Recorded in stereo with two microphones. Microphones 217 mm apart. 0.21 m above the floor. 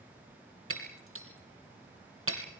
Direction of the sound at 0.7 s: 80° right.